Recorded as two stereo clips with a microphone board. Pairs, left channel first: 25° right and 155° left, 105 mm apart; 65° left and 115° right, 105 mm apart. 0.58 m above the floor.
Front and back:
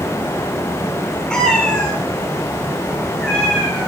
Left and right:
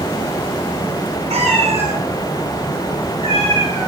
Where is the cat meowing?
105° right, 3.5 m; by 3.9 s 100° right, 5.5 m.